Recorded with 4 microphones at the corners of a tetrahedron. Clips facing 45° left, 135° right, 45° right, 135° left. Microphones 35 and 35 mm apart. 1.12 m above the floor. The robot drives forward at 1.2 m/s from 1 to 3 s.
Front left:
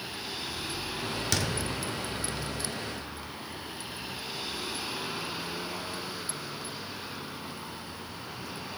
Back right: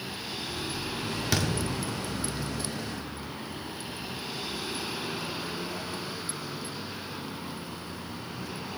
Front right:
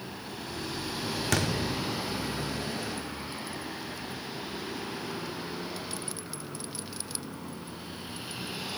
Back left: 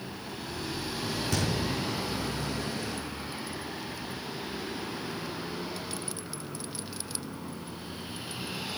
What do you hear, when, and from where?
1.3 s a thud: 55° right, 1.4 m; by 1.5 s 65° right, 1.3 m